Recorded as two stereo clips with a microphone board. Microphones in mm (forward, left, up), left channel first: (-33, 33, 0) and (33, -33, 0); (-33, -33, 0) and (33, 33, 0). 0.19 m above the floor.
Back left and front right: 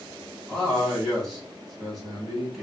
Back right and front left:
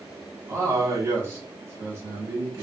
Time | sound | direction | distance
0.5 | a man speaking | 45° left | 1.3 m